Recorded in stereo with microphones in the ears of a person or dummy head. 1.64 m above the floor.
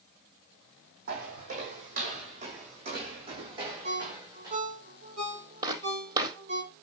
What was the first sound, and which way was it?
Footsteps, 50° right (ahead or behind).